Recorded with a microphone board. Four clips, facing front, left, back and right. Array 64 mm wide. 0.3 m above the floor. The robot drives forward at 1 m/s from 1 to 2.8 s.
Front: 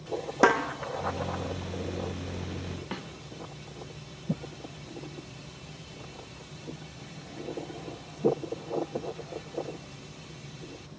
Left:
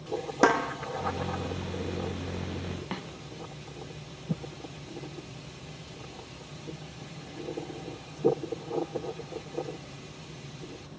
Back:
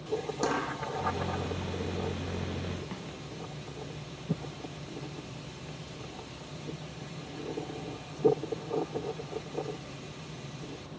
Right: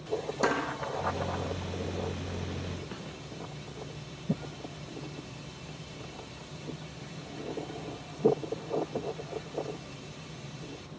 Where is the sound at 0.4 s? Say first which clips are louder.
Left 6 dB, front 10 dB; 40° left, 3.5 m.